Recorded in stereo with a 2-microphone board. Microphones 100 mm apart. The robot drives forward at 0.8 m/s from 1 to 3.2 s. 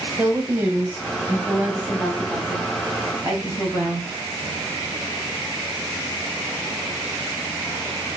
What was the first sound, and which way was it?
A woman speaking, 20° right (ahead or behind).